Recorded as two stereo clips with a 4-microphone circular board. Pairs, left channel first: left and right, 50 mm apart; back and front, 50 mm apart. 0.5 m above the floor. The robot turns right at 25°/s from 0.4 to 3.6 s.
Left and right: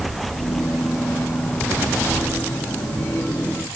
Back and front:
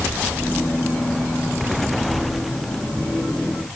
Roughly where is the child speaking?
No child speaking in this recording.